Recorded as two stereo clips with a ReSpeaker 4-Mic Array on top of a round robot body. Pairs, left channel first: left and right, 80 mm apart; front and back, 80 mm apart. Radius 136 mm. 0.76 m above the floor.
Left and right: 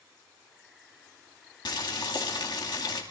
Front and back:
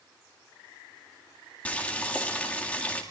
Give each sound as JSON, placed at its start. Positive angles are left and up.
{"t": 1.6, "sound": "boiling", "azimuth_deg": 70, "distance_m": 2.0}